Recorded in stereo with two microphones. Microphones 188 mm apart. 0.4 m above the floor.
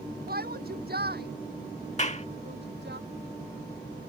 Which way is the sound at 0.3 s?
60° right (ahead or behind).